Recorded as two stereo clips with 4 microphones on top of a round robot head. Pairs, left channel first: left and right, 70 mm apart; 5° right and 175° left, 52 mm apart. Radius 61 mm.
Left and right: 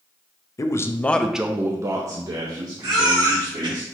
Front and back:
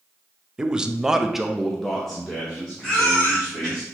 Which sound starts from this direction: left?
A man speaking, at 0.6 s.